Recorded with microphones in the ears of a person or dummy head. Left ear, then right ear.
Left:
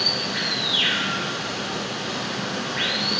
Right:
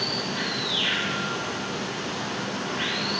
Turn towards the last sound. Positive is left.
turn(degrees=50)  # may be behind; listen again after turning